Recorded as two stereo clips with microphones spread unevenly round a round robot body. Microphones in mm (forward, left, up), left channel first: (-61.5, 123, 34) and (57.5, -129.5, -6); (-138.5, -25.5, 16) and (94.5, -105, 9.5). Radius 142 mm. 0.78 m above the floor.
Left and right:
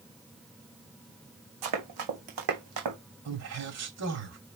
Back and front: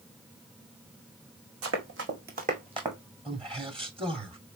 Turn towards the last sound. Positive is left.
turn(degrees=-85)